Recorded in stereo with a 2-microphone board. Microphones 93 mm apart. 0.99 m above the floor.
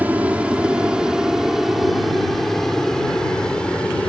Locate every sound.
0.0 s an aircraft: 15° right (ahead or behind); by 4.1 s 10° left (ahead or behind)